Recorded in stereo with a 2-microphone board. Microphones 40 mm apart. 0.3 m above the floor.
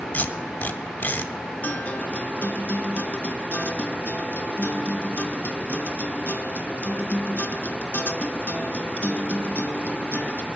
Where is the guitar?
50° left (ahead or behind), 0.6 m.